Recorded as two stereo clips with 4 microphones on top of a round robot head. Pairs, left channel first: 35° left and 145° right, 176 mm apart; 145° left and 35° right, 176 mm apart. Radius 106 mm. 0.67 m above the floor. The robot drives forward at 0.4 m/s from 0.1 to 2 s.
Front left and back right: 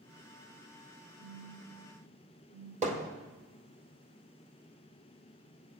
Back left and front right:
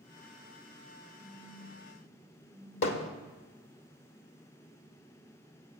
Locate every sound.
1.2 s a phone buzzing: 160° right, 4.5 m
2.8 s hammering: 160° left, 1.3 m